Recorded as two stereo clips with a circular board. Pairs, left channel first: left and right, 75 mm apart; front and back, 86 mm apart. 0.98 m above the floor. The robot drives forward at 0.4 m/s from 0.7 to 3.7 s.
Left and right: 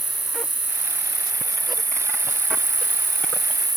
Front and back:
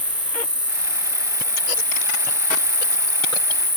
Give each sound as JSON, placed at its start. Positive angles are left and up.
{"t": 0.0, "sound": "an insect", "azimuth_deg": -25}